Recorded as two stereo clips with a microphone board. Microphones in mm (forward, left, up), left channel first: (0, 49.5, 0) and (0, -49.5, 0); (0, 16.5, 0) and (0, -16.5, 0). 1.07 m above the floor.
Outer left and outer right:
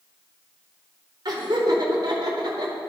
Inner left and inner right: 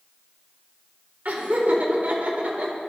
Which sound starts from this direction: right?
Laughter, at 1.2 s.